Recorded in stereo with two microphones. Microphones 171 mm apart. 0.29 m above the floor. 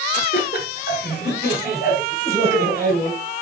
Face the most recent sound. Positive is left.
turn(degrees=55)  # may be behind; listen again after turning